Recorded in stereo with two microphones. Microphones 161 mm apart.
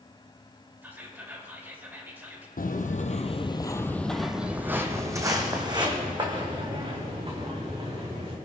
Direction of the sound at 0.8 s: 10° right (ahead or behind).